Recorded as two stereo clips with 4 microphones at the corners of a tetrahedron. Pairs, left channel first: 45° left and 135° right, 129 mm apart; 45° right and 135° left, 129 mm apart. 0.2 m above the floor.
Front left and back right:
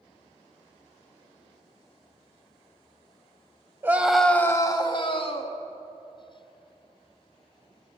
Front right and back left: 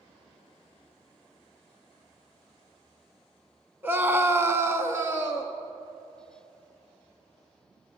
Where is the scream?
175° right, 1.1 m; by 5.6 s 65° left, 1.9 m.